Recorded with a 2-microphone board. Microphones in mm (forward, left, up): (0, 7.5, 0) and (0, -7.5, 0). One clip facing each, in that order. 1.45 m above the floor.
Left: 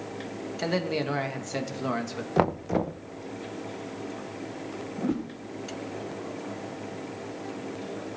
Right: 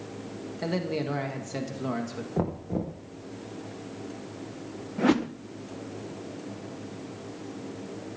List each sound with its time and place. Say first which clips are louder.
0.6 s a man speaking: left 2 dB; 15° left (ahead or behind), 2 m
2.4 s knocking: left 6 dB; 55° left (ahead or behind), 0.6 m
5.0 s a whoosh: right 7 dB; 80° right, 0.6 m